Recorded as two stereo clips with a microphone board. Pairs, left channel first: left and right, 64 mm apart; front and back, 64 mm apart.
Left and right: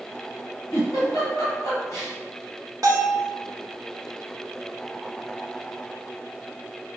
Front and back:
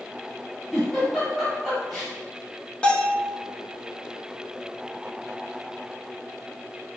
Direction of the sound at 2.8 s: 70° right.